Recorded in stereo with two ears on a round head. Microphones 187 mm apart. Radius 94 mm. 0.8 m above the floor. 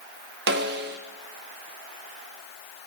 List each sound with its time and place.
0.5 s a snare drum: 55° right (ahead or behind), 1.0 m